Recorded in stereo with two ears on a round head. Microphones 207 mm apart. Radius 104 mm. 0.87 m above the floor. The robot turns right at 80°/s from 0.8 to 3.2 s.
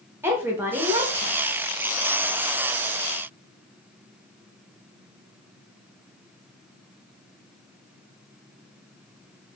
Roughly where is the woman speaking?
Behind.